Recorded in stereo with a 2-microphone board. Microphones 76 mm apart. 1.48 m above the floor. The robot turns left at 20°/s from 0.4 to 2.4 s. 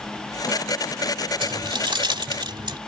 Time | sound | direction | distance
1.4 | keys jangling | 75° right (ahead or behind) | ?